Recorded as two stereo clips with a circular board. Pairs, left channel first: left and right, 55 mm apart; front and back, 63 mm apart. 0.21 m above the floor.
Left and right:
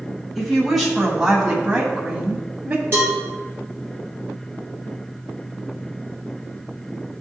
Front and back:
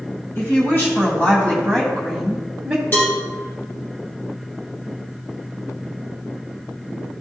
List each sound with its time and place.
0.3 s a woman speaking: straight ahead, 2 m; by 2.8 s 110° right, 1.7 m
2.9 s a cowbell: 50° right, 2 m